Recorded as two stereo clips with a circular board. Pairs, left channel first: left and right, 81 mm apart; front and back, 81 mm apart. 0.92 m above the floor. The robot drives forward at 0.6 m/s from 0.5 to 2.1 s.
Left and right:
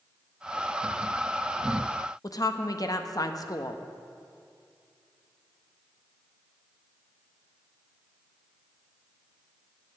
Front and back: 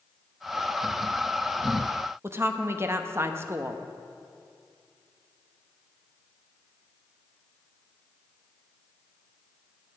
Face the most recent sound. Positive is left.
turn(degrees=125)